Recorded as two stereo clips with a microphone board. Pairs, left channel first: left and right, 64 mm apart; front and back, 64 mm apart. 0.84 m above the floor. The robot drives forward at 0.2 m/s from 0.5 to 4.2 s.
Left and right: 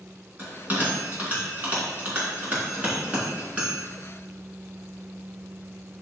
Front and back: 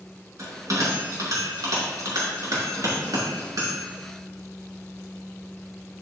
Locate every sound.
0.4 s a bell: 155° right, 3 m; by 3.8 s 160° right, 4 m